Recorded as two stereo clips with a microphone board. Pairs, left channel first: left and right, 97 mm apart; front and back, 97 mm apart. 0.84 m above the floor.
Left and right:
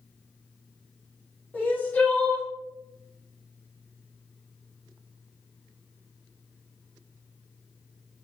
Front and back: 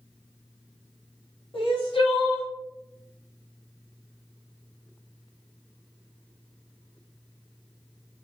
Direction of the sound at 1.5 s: 15° left.